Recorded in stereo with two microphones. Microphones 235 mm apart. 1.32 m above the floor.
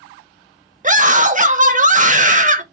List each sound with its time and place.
0.8 s a scream: 35° right (ahead or behind), 1.2 m